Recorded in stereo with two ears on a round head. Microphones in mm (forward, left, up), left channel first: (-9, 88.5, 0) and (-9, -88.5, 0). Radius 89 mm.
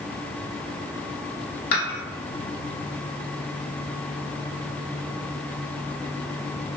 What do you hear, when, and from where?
1.7 s dishes clattering: 50° left (ahead or behind), 1.8 m